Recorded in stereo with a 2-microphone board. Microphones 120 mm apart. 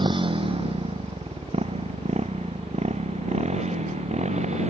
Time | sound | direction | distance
0.0 | a motorcycle | 45° right (ahead or behind) | ?